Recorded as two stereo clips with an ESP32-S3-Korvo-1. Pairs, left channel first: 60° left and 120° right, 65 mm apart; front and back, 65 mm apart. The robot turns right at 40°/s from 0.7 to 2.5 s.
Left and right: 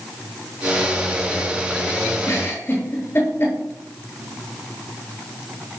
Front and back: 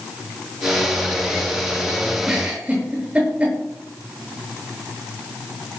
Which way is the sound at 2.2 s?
100° left.